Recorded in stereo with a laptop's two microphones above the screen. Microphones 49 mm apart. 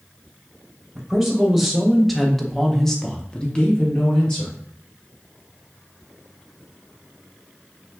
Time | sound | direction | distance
0.9 | a man speaking | 5° right (ahead or behind) | 1.5 m